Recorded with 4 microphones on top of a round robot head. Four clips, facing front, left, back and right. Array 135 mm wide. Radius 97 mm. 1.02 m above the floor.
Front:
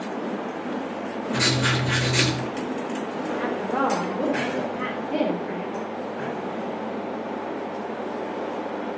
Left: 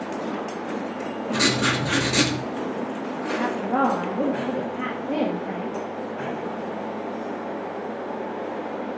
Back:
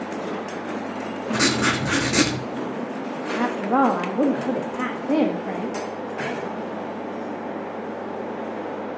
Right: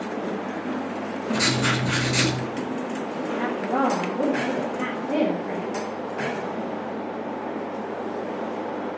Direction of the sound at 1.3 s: 150° left.